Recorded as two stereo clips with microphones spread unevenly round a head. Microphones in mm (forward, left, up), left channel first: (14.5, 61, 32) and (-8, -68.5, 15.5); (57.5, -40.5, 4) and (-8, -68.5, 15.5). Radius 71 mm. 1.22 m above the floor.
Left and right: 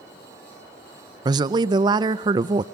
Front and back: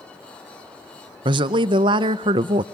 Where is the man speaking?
160° right, 0.6 m.